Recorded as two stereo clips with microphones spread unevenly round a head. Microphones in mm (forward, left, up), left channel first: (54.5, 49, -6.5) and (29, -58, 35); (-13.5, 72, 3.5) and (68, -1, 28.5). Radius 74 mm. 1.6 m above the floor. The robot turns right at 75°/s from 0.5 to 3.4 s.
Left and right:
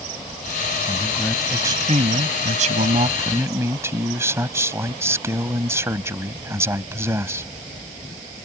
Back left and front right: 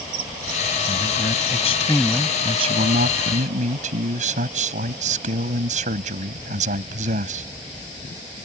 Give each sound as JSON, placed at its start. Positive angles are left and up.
{"t": 0.9, "sound": "a man speaking", "azimuth_deg": 130}